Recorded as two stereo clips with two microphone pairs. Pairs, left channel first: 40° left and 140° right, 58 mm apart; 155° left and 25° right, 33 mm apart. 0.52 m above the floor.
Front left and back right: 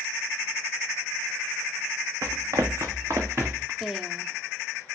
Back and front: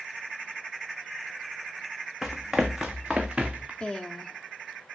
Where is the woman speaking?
135° left, 0.7 m.